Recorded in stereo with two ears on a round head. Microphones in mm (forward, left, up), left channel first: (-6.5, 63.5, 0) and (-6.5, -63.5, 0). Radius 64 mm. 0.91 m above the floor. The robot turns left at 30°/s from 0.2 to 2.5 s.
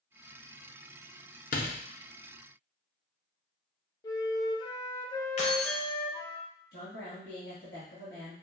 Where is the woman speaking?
75° left (ahead or behind), 1.5 m.